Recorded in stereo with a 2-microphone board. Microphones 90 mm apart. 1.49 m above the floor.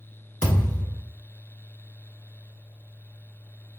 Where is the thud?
20° left (ahead or behind), 1.7 m.